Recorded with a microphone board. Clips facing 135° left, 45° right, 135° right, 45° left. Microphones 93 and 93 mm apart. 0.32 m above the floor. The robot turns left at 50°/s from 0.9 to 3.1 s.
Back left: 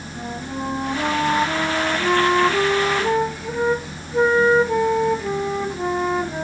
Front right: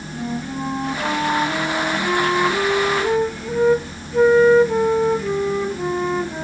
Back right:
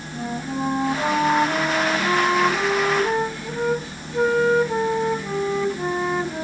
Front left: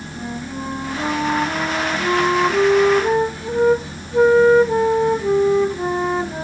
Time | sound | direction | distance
0.1 | a flute | 160° left | 1.3 m